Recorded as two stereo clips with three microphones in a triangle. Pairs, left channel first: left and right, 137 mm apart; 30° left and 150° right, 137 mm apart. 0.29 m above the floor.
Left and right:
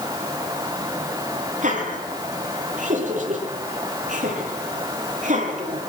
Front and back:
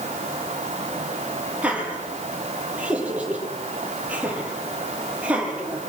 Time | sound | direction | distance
1.6 | laughter | 70° right | 9 m